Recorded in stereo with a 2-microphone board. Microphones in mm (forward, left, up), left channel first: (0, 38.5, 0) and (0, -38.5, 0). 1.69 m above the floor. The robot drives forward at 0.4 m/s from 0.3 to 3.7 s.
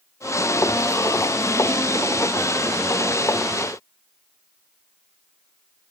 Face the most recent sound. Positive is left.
No sound to turn to.